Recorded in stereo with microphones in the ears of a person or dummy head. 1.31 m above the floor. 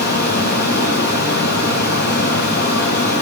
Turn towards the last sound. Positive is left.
turn(degrees=55)  # may be behind; listen again after turning